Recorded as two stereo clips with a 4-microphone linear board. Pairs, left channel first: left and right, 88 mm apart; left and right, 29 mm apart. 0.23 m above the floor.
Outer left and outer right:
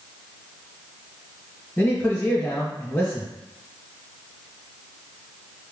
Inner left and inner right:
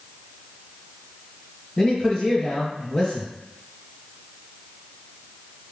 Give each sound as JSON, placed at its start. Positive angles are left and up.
{"t": 1.8, "sound": "a man speaking", "side_deg": 10, "distance_m": 1.1}